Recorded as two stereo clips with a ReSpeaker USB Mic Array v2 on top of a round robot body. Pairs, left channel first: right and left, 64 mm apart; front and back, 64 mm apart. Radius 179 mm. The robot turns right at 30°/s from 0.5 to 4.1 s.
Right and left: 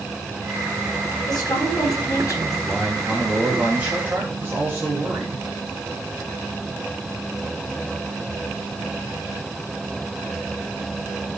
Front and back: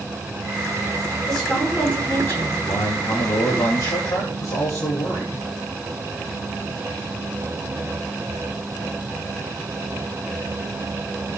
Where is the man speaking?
10° right, 4 m; by 5.5 s 35° left, 4 m.